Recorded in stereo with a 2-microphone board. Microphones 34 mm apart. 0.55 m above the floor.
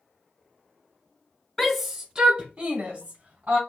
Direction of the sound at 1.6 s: 5° left (ahead or behind).